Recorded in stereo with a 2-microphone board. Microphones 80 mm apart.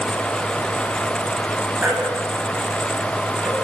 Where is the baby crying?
20° right (ahead or behind), 10 m.